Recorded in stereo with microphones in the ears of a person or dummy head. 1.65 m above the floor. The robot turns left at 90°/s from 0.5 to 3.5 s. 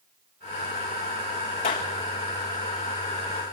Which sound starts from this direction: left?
A clap, at 1.6 s.